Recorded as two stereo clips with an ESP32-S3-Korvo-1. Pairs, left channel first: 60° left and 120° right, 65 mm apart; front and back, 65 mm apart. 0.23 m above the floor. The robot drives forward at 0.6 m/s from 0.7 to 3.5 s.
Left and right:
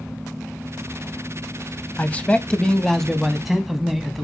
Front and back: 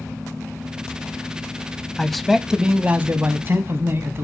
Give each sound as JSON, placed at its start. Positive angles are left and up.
{"t": 2.0, "sound": "a man speaking", "azimuth_deg": 75, "distance_m": 1.0}